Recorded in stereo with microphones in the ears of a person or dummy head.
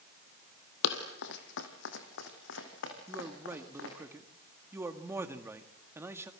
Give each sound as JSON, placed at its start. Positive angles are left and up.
{"t": 0.8, "sound": "running footsteps", "side_deg": 60, "distance_m": 2.5}
{"t": 3.1, "sound": "a man speaking", "side_deg": -10, "distance_m": 1.8}